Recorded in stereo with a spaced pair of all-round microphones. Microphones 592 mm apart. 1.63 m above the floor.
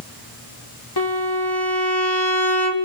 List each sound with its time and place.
1.0 s a violin: 40° left (ahead or behind), 1.9 m